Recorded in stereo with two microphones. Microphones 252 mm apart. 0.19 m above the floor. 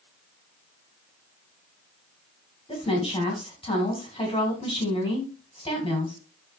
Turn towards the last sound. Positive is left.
turn(degrees=20)  # may be behind; listen again after turning